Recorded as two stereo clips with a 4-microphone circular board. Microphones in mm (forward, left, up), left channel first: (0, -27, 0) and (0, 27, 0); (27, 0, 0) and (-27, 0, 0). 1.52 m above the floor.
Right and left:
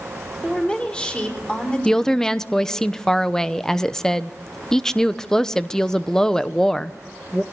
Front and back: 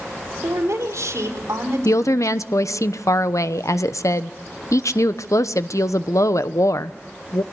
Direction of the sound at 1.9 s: 10° right.